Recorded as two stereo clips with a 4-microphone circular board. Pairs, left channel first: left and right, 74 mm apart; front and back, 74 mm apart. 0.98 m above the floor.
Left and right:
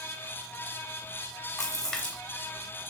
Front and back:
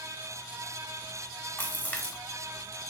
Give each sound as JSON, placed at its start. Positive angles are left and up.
{"t": 1.6, "sound": "a splash", "azimuth_deg": 25, "distance_m": 0.8}